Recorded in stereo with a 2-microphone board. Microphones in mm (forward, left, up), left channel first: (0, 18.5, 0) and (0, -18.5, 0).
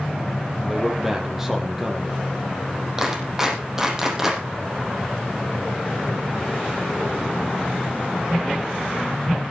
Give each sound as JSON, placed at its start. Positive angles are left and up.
{"t": 0.7, "sound": "a man speaking", "side_deg": -10, "distance_m": 6.0}
{"t": 3.0, "sound": "a clap", "side_deg": -15, "distance_m": 6.5}